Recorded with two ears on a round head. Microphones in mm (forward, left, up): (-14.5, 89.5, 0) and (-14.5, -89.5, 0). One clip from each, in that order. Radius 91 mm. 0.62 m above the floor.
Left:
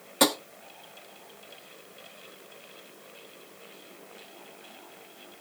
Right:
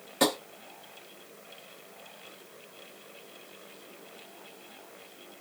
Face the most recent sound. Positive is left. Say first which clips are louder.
# left 3 dB
turn(degrees=20)  # may be behind; listen again after turning